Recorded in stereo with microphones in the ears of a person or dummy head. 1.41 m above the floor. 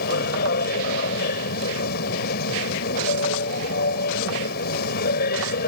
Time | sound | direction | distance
0.0 | a machine running | 65° left (ahead or behind) | ?